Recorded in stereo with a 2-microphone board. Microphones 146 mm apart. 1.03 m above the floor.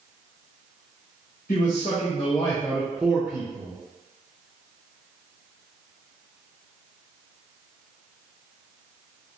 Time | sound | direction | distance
1.5 | a man speaking | 65° left (ahead or behind) | 1.0 m